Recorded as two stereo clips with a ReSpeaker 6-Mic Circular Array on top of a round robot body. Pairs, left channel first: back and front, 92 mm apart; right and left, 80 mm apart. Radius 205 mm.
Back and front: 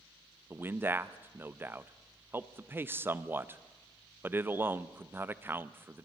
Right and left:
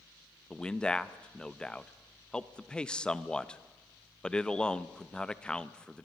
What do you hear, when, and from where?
0.5 s a man speaking: 30° right, 0.9 m